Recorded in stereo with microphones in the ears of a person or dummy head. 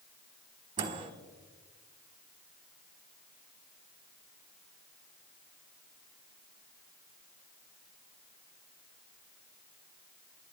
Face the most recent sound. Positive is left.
turn(degrees=-35)  # may be behind; listen again after turning